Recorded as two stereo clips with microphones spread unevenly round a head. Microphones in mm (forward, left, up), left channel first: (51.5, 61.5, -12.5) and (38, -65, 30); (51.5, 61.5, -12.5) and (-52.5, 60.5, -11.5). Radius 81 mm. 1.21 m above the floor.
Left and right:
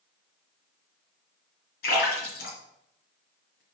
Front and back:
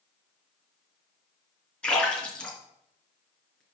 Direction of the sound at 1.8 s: 80° left.